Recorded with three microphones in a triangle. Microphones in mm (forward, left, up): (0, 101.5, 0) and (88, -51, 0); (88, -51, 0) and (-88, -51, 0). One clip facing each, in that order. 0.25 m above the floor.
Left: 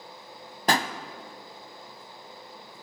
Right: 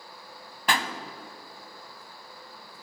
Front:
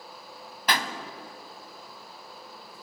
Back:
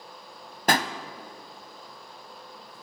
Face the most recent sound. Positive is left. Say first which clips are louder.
# left 3 dB, back 5 dB
turn(degrees=155)